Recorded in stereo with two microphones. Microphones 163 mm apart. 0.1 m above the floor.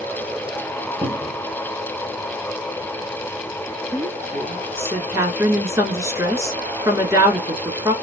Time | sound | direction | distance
1.0 | a cupboard door | 35° right (ahead or behind) | 0.8 m
3.9 | a woman speaking | 20° right (ahead or behind) | 1.1 m